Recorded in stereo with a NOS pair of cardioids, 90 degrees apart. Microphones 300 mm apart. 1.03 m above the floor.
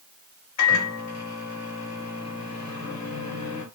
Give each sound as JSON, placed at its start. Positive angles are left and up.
{"t": 0.6, "sound": "a microwave", "azimuth_deg": 55, "distance_m": 1.4}